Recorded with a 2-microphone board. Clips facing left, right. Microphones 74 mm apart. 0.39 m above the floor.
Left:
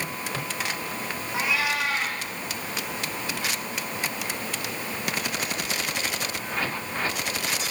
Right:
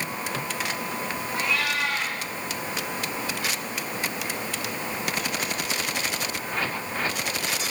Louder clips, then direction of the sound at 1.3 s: Left 1 dB; 5° left (ahead or behind).